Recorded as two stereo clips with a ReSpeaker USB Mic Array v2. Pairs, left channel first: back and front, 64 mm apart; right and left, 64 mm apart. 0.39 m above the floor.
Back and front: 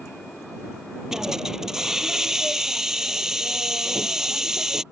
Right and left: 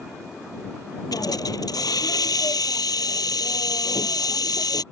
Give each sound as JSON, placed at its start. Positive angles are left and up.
{"t": 1.1, "sound": "a hiss", "azimuth_deg": -80}